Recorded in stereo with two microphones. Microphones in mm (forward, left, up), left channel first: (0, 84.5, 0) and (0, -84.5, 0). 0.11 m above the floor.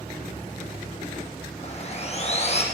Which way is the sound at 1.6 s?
45° left (ahead or behind).